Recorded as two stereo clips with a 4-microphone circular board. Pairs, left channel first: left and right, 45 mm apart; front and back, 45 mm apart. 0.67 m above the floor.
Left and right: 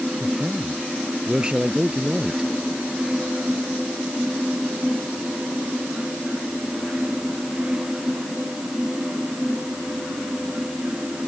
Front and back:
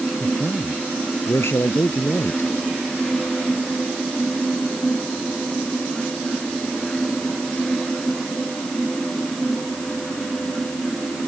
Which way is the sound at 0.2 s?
20° right.